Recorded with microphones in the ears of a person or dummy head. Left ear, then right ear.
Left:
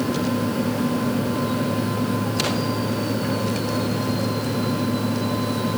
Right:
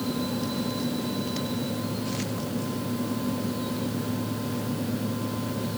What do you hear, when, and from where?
Only background noise.